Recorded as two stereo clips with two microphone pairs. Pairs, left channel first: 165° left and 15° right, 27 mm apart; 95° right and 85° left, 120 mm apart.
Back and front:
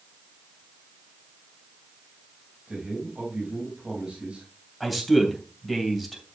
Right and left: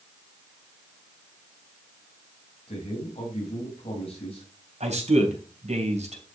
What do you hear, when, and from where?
2.7 s a man speaking: 65° right, 4 m
4.8 s a man speaking: 70° left, 3 m